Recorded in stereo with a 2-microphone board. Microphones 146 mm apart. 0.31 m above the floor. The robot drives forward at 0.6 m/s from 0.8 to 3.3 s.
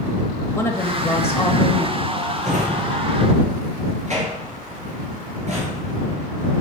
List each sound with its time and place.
0.6 s a woman speaking: 15° left (ahead or behind), 1.0 m
2.4 s a drawer: 60° right (ahead or behind), 3 m; by 6.6 s 50° right (ahead or behind), 3.5 m